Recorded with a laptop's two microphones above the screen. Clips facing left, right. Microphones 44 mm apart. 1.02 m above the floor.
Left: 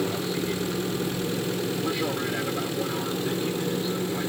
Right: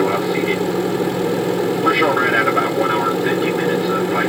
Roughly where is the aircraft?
Right.